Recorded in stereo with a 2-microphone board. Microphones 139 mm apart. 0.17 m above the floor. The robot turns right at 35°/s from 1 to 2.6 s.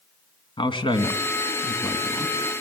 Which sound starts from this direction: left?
A man speaking, at 0.6 s.